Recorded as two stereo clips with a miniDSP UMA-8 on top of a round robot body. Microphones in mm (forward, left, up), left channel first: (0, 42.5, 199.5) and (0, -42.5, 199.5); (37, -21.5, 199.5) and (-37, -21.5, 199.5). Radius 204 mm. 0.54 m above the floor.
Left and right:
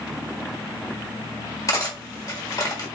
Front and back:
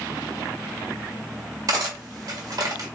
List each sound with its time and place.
1.7 s cutlery clinking: 140° left, 1.4 m